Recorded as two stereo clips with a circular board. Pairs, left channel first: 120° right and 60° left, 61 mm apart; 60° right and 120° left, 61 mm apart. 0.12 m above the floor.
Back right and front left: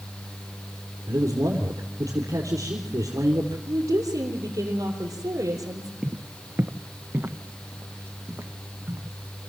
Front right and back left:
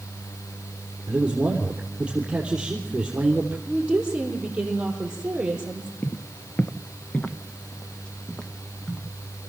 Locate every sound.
1.1 s a man speaking: 45° left, 3 m
3.7 s a woman speaking: 45° left, 4 m
6.0 s footsteps: 5° right, 0.6 m; by 9.1 s 15° left, 2.5 m